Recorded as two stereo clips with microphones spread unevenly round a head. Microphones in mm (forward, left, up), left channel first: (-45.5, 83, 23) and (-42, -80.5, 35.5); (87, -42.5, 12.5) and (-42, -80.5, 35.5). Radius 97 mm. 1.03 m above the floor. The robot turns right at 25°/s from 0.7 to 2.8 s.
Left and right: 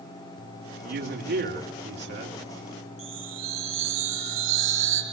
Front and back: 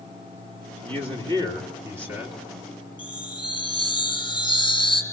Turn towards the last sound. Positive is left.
turn(degrees=-40)